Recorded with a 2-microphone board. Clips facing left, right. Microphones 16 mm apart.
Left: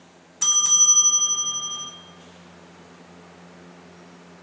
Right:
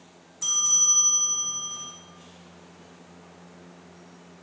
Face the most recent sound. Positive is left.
turn(degrees=80)